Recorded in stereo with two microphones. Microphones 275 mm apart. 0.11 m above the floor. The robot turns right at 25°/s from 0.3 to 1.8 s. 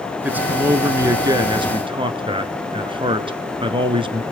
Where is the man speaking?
5° right (ahead or behind), 1.1 m; by 4.2 s 20° right (ahead or behind), 1.1 m.